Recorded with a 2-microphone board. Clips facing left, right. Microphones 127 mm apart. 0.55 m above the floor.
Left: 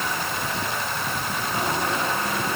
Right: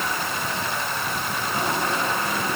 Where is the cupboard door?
No cupboard door in this recording.